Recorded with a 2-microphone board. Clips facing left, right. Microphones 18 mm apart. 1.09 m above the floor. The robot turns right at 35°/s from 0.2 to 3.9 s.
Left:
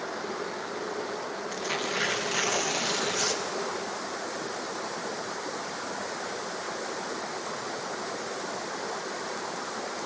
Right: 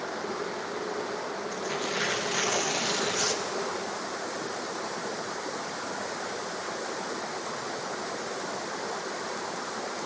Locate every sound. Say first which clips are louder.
1.5 s tearing paper: left 2 dB; 65° left, 1.3 m; by 3.5 s 130° left, 1.3 m